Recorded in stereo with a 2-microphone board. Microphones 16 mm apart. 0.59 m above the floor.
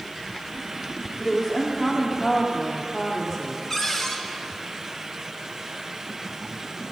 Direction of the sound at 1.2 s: 25° left (ahead or behind).